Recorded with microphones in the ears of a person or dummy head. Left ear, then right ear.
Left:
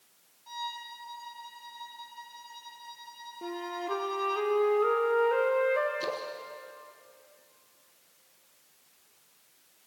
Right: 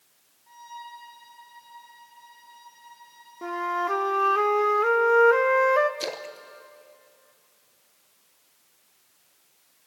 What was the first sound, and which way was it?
A violin, 75° left (ahead or behind).